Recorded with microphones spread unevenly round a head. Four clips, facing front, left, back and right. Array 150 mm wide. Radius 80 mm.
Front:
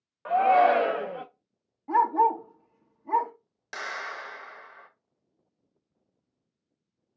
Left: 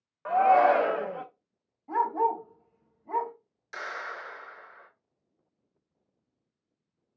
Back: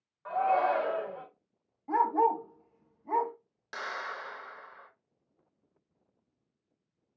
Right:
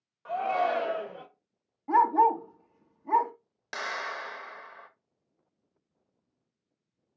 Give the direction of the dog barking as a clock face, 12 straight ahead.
2 o'clock.